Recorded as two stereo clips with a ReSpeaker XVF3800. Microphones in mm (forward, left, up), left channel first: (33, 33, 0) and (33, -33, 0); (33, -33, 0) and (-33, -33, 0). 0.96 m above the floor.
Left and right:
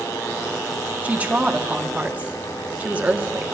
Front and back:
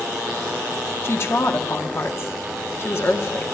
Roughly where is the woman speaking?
Ahead right.